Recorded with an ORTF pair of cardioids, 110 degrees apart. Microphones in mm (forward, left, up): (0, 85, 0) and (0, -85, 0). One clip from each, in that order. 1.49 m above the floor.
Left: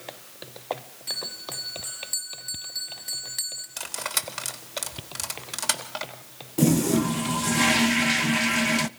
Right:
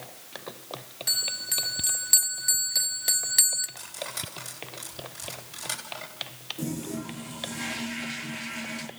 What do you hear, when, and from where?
1.1 s a bell: 50° right, 2.0 m
3.8 s cutlery clinking: 70° left, 3 m
6.6 s a toilet flushing: 60° left, 0.6 m